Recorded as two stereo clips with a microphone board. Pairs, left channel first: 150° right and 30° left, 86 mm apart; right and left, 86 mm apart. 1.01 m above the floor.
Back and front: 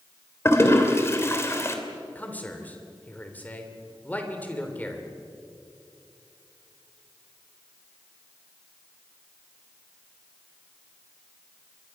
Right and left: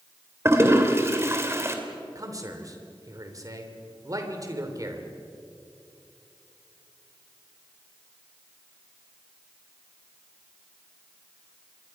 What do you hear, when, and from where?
0.5 s a toilet flushing: 150° left, 2.5 m
2.1 s a man speaking: 140° left, 3 m